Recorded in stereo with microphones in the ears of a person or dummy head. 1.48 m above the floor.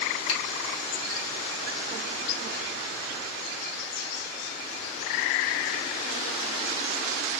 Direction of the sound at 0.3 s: 80° left.